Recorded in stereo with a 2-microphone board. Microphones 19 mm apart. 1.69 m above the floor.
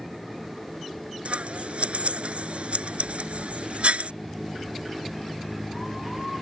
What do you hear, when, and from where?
1.2 s scissors: 80° right